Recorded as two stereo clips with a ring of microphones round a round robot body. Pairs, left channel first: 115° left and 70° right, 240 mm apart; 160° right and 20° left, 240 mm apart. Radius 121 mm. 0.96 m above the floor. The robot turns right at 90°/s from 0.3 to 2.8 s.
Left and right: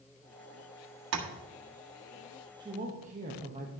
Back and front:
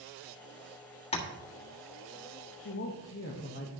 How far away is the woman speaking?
About 1.3 m.